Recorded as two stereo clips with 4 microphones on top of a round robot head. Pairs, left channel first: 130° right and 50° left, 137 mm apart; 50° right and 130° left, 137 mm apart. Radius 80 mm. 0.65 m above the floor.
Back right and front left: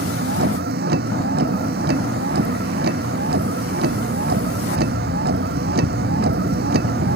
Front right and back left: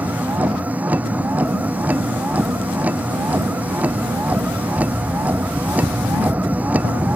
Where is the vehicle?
50° left.